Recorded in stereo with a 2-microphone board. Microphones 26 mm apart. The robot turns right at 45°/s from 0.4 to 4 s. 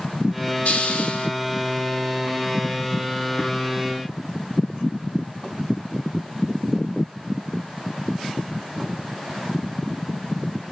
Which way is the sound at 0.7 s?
65° left (ahead or behind).